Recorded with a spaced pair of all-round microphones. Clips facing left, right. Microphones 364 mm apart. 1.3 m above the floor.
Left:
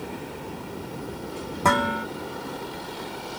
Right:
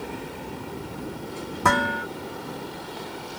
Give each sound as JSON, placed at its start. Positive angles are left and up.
{"t": 1.6, "sound": "dishes clattering", "side_deg": -20, "distance_m": 1.6}